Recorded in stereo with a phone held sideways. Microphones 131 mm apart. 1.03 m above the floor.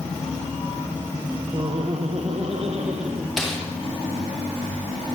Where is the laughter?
40° right (ahead or behind), 1.0 m; by 3.3 s 55° right (ahead or behind), 2 m.